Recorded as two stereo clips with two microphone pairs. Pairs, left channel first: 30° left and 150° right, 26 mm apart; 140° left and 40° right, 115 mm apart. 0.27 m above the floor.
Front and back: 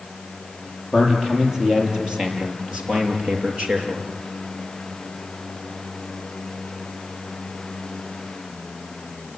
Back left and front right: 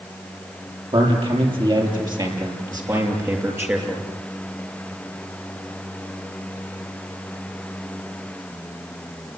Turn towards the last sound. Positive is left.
turn(degrees=-115)